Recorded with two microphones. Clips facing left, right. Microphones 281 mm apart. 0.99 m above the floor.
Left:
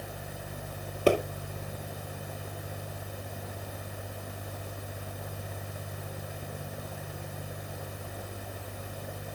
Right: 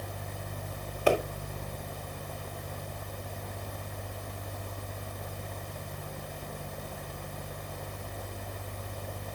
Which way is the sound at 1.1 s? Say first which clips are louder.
Left 2 dB; 45° left (ahead or behind).